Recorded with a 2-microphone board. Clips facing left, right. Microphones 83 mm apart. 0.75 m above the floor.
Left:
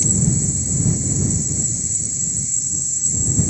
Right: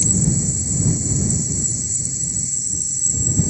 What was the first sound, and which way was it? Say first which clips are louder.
An insect: even; 50° right (ahead or behind).